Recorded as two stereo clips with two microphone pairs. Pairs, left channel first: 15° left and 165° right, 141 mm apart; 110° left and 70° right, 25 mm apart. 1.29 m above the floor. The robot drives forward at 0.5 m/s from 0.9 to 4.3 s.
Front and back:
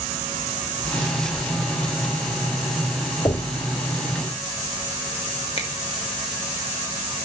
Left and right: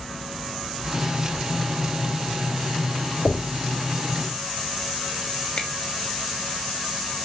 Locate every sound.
3.2 s knocking: 75° left, 2.5 m; by 3.6 s 80° left, 2 m
5.6 s a finger snap: 55° left, 2.5 m